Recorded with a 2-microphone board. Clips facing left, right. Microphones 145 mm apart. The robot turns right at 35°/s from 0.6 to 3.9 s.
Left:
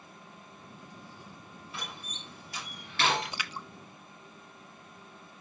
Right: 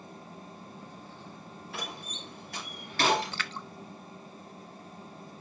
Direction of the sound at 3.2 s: 15° left (ahead or behind).